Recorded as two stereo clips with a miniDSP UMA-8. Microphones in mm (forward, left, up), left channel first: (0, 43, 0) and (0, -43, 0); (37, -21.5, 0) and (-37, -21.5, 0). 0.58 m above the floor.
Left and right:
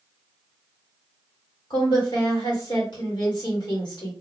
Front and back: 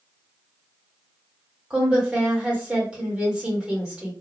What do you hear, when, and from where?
1.7 s a woman speaking: 105° left, 2 m